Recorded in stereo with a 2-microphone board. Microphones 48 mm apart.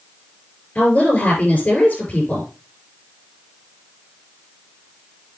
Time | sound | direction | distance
0.8 | a woman speaking | 30° left (ahead or behind) | 5.5 m